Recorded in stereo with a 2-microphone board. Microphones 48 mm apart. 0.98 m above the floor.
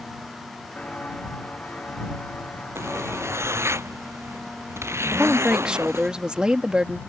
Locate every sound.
0.8 s footsteps: 25° left (ahead or behind); by 3.8 s 35° left (ahead or behind)
2.8 s a zipper: 65° right (ahead or behind)
5.1 s a woman speaking: 15° right (ahead or behind)